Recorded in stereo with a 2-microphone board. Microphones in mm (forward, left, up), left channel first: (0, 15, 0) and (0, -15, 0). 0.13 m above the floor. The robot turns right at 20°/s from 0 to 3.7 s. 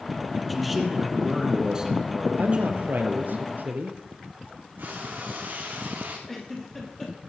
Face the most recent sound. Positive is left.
turn(degrees=10)  # may be behind; listen again after turning